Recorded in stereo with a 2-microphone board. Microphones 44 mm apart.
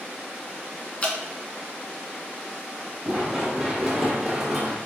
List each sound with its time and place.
1.0 s dripping: 30° left (ahead or behind), 0.7 m
3.0 s running footsteps: 10° right (ahead or behind), 2.5 m; by 4.8 s centre (ahead or behind), 1.8 m